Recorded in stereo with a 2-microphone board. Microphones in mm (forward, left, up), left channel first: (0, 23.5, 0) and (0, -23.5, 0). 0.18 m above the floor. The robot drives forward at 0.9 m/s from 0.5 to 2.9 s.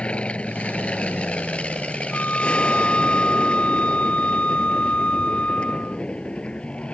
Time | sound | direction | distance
0.0 | an aircraft | 25° left (ahead or behind) | ?
2.1 | a flute | 40° left (ahead or behind) | ?